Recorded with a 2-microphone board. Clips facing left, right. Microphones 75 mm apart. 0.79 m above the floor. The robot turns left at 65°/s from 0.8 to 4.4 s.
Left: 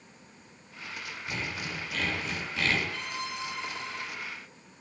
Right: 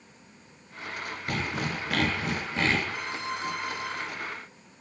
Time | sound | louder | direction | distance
1.3 | sawing | right 5 dB | 60° right | 7 m
2.9 | a violin | right 3 dB | 10° right | 6 m